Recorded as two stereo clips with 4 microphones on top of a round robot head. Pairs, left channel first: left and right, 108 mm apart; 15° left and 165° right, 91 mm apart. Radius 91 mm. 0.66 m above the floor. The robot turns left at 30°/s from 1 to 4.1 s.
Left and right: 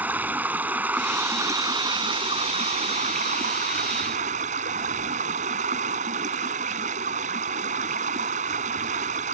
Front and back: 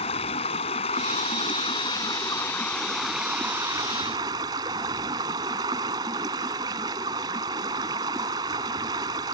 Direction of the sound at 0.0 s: 15° right.